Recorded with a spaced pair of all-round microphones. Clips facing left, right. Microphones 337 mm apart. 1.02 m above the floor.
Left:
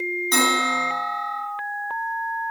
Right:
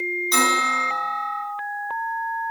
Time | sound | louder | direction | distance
0.3 | a bell | left 3 dB | 65° left (ahead or behind) | 1.3 m